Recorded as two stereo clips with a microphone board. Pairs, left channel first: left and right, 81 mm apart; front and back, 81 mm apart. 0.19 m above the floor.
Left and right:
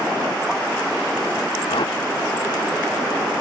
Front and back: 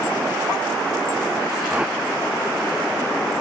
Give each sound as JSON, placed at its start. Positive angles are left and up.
{"t": 1.7, "sound": "a whoosh", "azimuth_deg": 100}